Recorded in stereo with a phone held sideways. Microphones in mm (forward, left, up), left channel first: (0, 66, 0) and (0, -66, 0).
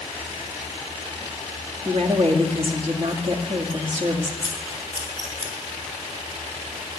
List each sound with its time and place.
1.9 s a woman speaking: 50° right (ahead or behind), 1.8 m
4.4 s scissors: 35° left (ahead or behind), 3 m